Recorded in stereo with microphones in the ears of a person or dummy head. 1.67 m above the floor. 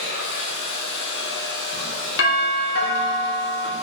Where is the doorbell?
65° left (ahead or behind), 4.5 m.